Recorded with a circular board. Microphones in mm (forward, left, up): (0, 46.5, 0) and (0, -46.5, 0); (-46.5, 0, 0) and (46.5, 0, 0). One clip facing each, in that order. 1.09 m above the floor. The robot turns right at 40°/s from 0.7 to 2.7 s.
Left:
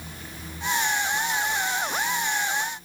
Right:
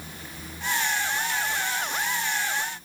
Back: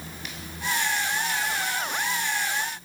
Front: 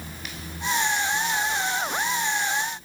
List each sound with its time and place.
Only background noise.